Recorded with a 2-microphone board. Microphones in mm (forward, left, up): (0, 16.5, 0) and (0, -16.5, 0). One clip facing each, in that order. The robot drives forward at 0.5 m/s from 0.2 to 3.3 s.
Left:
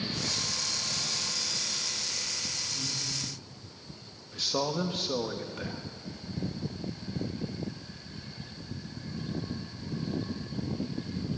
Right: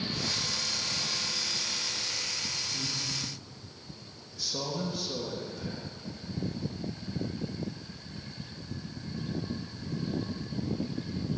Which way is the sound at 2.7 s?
80° right.